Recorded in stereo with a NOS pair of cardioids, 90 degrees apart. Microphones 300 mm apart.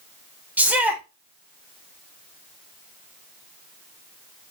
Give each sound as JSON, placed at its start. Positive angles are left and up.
{"t": 0.6, "sound": "a shout", "azimuth_deg": -5, "distance_m": 4.0}